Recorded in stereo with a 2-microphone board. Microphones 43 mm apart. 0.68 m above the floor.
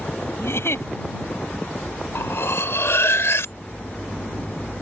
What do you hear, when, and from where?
0.4 s a giggle: 75° left (ahead or behind)
2.1 s cutlery clinking: 85° left